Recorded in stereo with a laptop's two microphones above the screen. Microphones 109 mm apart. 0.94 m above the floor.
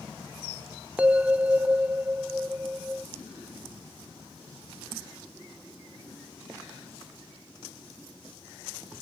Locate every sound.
1.0 s a bell: 15° right (ahead or behind), 0.6 m